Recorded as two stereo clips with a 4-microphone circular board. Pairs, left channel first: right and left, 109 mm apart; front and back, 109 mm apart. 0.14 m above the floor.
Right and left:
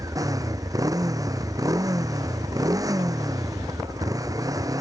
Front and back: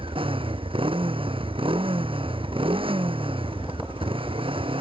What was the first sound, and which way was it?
A motorcycle, 145° left.